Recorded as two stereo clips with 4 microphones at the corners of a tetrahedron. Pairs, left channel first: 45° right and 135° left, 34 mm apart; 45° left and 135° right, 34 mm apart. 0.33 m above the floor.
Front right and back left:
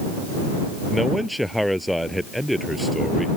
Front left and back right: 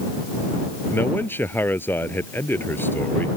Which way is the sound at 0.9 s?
50° left.